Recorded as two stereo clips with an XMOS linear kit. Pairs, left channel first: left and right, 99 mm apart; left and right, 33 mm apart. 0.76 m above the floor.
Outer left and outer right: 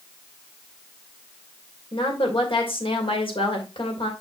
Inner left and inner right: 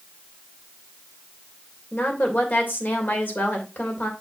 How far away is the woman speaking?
About 2.5 m.